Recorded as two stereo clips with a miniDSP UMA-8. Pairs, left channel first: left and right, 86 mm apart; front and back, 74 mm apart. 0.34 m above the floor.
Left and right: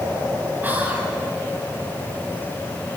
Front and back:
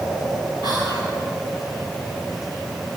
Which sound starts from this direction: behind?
Whispering, at 0.6 s.